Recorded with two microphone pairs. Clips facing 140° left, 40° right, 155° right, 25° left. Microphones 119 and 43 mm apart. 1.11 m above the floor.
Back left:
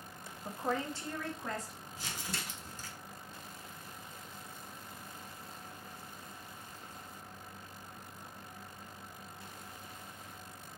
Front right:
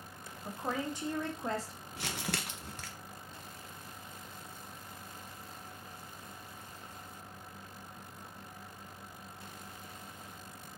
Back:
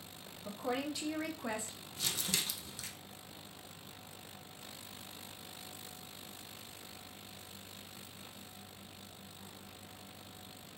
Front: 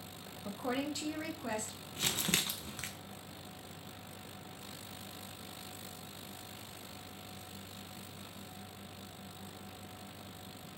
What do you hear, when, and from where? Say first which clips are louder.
0.5 s a woman speaking: back left 1 dB, front 1 dB; 65° left, 0.6 m; by 1.7 s 85° right, 1.0 m
2.0 s crumpling: front right 5 dB, front 4 dB; 15° right, 0.6 m